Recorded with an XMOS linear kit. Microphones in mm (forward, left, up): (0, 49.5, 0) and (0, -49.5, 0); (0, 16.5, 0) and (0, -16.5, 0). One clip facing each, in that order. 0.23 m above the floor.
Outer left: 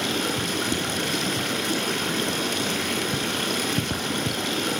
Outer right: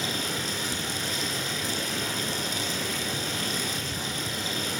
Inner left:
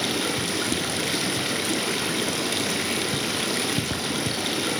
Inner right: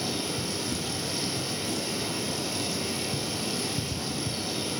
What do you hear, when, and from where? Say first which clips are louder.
0.0 s running water: outer left 6 dB, inner left 6 dB; 70° left (ahead or behind), 3.5 m